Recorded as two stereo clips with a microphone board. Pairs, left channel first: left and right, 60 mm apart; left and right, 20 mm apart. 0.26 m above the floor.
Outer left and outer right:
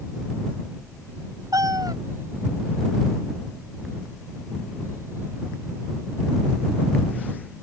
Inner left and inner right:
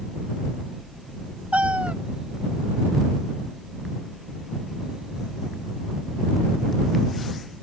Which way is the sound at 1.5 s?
80° right.